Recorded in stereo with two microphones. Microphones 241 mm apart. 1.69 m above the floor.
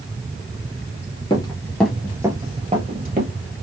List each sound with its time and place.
1.3 s running footsteps: 20° left (ahead or behind), 1.8 m; by 3.3 s 45° right (ahead or behind), 2 m